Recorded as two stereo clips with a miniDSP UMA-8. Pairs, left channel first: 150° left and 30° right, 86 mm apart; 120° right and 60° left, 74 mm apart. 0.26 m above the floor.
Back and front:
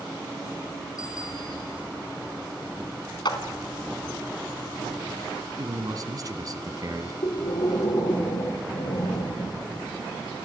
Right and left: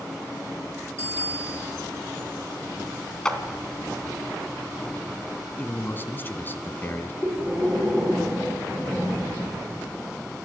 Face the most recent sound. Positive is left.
turn(degrees=130)